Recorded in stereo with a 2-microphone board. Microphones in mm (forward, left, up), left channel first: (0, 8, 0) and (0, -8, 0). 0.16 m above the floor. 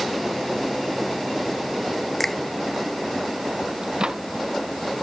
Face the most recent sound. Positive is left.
turn(degrees=-55)  # may be behind; listen again after turning